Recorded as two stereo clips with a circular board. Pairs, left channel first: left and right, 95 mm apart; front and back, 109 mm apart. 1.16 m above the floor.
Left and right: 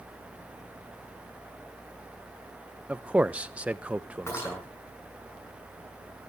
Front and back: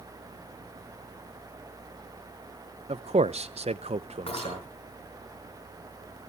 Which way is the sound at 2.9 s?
165° right.